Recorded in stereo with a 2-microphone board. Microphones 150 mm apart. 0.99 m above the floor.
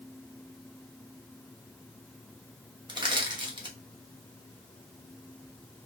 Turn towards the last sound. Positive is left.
turn(degrees=-30)  # may be behind; listen again after turning